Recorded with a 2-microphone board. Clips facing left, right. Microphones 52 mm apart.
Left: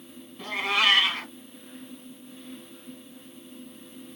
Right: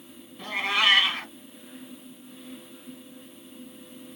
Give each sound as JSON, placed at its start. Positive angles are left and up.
{"t": 0.4, "sound": "a cat meowing", "side_deg": -5, "distance_m": 1.2}